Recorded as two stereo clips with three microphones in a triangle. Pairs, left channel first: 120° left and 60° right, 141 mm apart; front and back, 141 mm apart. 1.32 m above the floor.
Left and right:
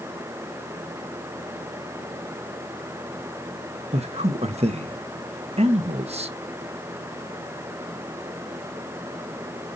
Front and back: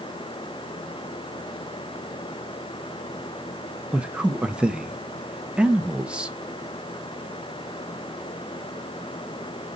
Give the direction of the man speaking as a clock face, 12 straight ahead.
3 o'clock.